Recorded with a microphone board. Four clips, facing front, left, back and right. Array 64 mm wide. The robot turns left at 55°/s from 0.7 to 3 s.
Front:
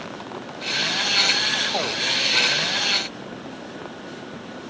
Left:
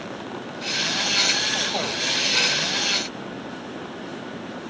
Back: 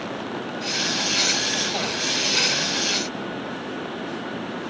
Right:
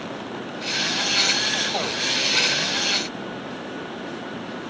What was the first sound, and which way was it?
Only background noise.